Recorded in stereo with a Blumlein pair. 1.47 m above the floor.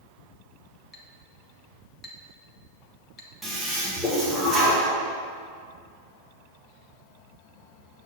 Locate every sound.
0.9 s a clink: 25° left, 1.0 m
3.4 s a toilet flushing: straight ahead, 1.8 m